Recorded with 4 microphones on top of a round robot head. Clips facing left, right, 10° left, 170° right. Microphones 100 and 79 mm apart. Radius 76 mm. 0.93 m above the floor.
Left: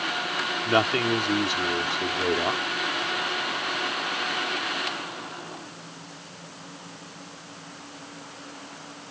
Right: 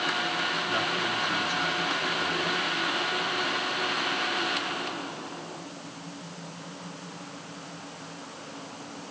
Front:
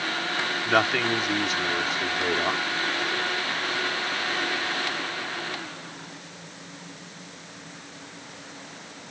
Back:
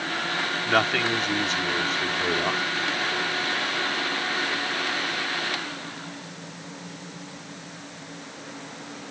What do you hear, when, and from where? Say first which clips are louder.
0.7 s a man speaking: left 7 dB, even; 95° left